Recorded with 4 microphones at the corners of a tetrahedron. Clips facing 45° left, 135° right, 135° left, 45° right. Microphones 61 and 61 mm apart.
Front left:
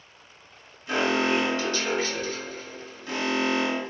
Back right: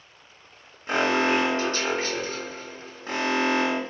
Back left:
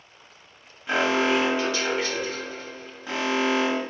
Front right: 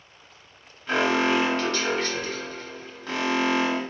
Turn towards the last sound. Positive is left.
turn(degrees=-155)